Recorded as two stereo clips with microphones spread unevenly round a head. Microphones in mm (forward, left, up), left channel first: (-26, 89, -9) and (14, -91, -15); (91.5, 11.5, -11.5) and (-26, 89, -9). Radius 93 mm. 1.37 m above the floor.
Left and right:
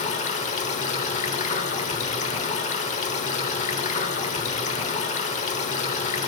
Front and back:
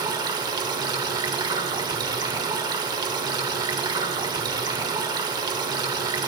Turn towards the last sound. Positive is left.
turn(degrees=110)